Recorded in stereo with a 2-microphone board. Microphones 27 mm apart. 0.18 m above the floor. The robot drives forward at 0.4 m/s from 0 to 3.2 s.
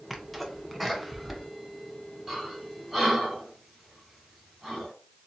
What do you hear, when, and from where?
0.1 s a sneeze: 5° left (ahead or behind), 1.1 m
2.3 s breathing: 5° right (ahead or behind), 3.5 m